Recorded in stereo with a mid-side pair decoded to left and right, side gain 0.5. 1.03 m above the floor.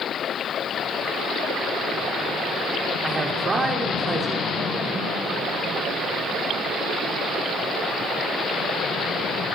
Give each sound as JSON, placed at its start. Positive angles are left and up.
{"t": 3.0, "sound": "a man speaking", "azimuth_deg": -30, "distance_m": 3.0}